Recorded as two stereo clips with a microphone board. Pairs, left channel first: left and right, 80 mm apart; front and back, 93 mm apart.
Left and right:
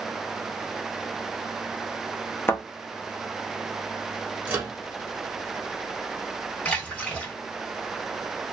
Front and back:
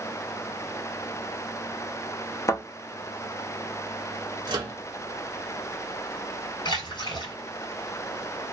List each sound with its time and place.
2.5 s a thud: 40° left, 0.8 m
4.5 s a microwave: 155° right, 0.8 m
6.7 s a splash: 15° left, 1.6 m